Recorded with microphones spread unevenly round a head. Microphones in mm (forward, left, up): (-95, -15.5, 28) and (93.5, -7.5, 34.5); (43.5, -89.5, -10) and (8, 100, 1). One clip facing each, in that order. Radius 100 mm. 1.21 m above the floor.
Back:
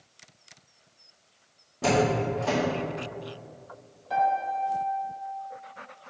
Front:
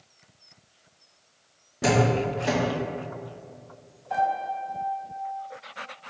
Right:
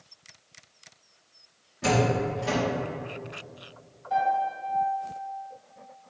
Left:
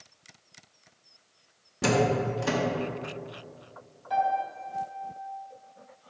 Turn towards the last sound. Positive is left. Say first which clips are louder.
# back 1 dB, right 2 dB
turn(degrees=135)